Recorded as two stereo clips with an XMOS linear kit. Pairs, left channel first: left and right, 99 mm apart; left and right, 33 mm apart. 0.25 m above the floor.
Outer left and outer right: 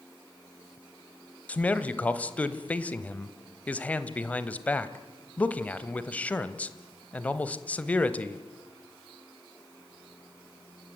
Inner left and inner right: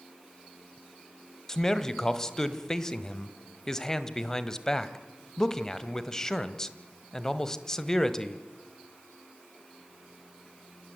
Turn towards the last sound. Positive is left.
turn(degrees=15)  # may be behind; listen again after turning